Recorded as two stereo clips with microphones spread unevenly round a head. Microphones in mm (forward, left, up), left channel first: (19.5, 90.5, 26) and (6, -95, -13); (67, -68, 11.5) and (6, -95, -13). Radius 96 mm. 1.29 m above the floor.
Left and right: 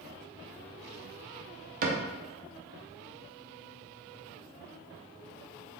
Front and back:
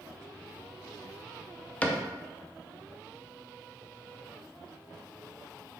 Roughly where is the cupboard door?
Ahead right.